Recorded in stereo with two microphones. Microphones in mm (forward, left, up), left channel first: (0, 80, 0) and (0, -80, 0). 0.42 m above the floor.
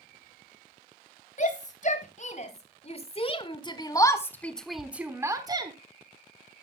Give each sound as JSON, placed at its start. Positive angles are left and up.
{"t": 1.4, "sound": "a shout", "side_deg": 50, "distance_m": 2.5}